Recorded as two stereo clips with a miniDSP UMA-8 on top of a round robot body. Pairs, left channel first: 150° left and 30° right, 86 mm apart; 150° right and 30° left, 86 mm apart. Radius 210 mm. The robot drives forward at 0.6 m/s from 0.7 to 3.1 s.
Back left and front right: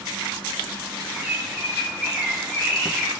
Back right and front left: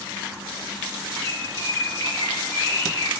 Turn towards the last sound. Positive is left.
turn(degrees=-125)